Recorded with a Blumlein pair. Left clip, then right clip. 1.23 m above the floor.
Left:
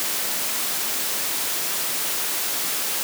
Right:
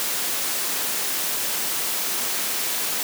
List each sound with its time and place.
Only background noise.